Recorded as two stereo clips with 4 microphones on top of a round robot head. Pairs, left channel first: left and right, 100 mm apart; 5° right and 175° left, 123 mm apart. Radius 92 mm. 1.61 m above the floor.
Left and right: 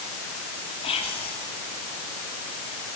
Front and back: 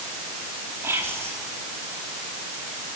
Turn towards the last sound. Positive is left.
turn(degrees=105)